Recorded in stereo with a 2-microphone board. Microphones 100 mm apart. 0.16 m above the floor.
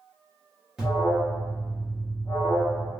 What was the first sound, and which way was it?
An alarm, 5° right (ahead or behind).